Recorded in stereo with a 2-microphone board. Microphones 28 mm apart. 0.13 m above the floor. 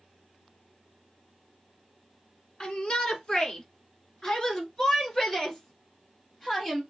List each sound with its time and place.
2.6 s a shout: 30° left (ahead or behind), 1.5 m; by 6.8 s 10° left (ahead or behind), 3 m